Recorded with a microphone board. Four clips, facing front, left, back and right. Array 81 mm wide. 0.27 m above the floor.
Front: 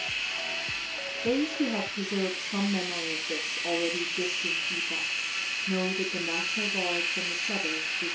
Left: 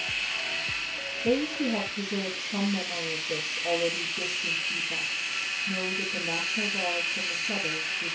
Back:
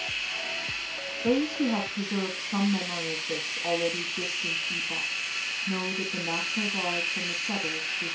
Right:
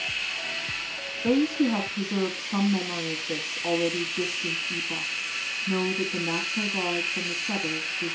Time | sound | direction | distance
1.2 | a woman speaking | 125° right | 3 m